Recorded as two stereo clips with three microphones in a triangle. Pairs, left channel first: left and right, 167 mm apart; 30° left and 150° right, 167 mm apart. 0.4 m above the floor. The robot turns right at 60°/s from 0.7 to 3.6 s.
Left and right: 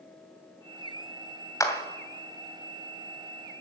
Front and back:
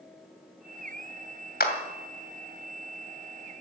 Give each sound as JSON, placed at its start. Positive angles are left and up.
{"t": 1.6, "sound": "a clap", "azimuth_deg": 20, "distance_m": 2.5}